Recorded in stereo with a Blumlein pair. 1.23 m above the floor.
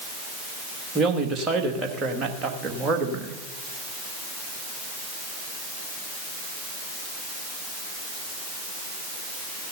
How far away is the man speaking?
About 1.7 m.